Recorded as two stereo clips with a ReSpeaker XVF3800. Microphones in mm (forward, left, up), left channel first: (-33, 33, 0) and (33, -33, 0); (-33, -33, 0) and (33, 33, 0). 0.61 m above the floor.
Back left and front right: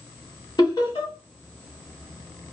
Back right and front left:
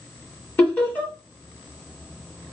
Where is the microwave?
I don't hear a microwave.